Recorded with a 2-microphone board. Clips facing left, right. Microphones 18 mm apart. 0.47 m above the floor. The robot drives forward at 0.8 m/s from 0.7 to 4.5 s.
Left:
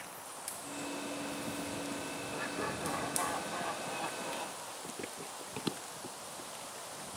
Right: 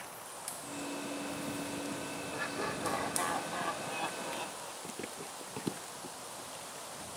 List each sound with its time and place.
2.3 s laughter: 25° right (ahead or behind)
4.8 s running footsteps: 40° right (ahead or behind); by 6.9 s 50° left (ahead or behind)